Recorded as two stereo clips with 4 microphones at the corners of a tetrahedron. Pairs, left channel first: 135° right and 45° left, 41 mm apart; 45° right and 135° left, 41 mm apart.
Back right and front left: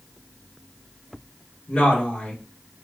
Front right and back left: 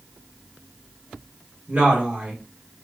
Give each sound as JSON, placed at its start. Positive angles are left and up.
{"t": 1.7, "sound": "a woman speaking", "azimuth_deg": 170, "distance_m": 1.6}